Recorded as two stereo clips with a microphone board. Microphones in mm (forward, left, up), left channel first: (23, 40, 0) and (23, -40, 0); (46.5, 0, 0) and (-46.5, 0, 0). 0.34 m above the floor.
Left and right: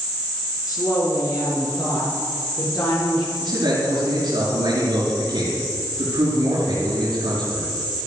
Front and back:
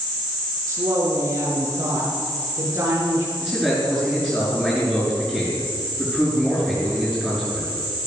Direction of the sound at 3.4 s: 75° right.